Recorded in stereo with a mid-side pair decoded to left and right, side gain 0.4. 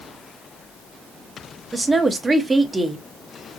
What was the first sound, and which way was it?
A woman speaking, 25° right.